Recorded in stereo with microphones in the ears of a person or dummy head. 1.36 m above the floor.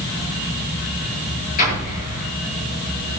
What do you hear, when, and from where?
1.6 s an explosion: 45° left (ahead or behind), 8.5 m